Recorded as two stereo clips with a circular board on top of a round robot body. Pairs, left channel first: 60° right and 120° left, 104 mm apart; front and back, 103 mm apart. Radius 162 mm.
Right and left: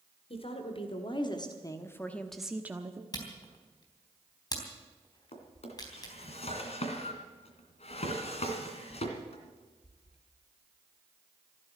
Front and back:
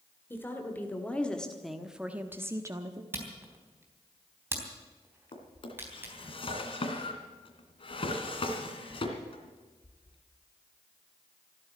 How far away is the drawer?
About 2.5 m.